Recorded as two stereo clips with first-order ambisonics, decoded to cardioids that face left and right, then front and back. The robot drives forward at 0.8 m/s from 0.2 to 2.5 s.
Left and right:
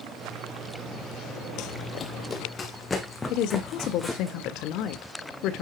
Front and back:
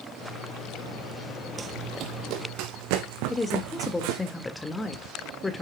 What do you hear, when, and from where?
1.6 s running footsteps: 105° left, 0.7 m; by 4.3 s 175° left, 2.5 m
3.3 s a woman speaking: 75° left, 1.6 m